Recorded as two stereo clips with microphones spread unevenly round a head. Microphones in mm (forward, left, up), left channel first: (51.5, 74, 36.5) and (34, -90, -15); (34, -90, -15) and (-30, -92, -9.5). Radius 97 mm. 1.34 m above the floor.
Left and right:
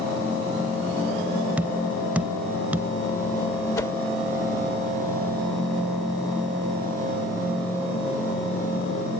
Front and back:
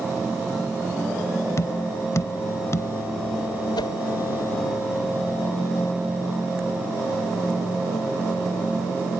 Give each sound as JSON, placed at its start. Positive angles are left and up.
{"t": 1.6, "sound": "tapping", "azimuth_deg": 5}
{"t": 3.8, "sound": "a whoosh", "azimuth_deg": 15}